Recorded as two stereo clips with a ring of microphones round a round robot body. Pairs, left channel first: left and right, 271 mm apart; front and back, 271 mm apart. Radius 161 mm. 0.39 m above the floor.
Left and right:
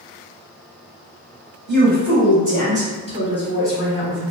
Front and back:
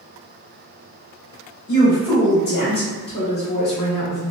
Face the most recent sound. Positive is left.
turn(degrees=5)